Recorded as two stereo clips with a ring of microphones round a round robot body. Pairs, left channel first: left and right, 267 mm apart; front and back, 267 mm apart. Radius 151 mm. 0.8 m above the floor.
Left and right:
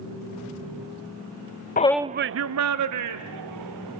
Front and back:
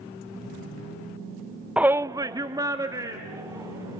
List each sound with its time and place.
1.8 s a shout: 95° left, 0.6 m; by 4.0 s 100° right, 3 m